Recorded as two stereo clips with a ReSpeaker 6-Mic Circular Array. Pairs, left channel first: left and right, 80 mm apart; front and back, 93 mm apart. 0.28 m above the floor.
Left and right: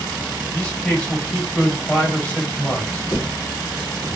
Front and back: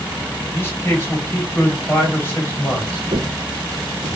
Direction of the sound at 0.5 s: 25° left.